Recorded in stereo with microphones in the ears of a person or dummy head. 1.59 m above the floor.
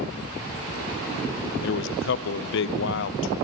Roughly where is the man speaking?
Left.